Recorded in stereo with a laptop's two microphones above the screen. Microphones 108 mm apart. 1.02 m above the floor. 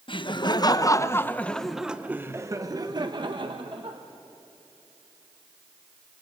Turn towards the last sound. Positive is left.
turn(degrees=-60)  # may be behind; listen again after turning